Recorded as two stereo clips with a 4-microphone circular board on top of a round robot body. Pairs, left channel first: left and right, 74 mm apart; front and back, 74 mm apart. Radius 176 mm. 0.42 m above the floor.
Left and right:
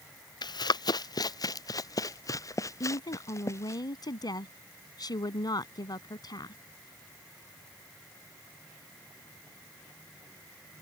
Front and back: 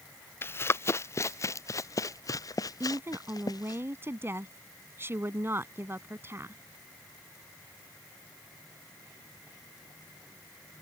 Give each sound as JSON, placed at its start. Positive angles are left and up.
{"t": 0.4, "sound": "running footsteps", "azimuth_deg": 60}
{"t": 2.8, "sound": "a woman speaking", "azimuth_deg": 120}